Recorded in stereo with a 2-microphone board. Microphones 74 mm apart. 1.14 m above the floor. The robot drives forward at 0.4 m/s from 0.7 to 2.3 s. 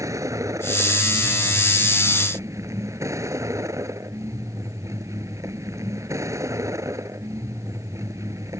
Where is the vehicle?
45° right (ahead or behind).